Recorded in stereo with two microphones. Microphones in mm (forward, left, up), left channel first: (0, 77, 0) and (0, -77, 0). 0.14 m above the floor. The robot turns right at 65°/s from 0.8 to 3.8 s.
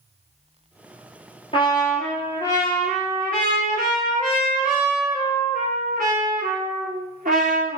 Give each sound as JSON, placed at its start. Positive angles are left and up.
{"t": 1.5, "sound": "a trumpet", "azimuth_deg": 140, "distance_m": 1.2}